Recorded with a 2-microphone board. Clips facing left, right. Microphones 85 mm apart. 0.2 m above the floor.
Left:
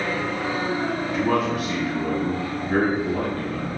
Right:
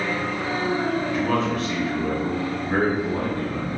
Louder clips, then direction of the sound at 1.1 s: Left 1 dB; 20° left (ahead or behind).